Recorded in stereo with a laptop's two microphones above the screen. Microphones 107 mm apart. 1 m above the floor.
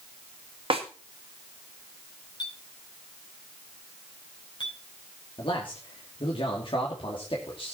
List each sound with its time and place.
0.7 s a snare drum: 55° right (ahead or behind), 1.8 m
2.4 s a clink: 45° left (ahead or behind), 4.5 m
5.4 s a man speaking: 50° left (ahead or behind), 2.5 m